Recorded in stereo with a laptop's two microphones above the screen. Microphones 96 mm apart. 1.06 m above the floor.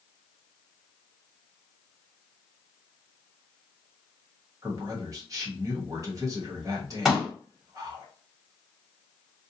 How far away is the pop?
About 1.1 m.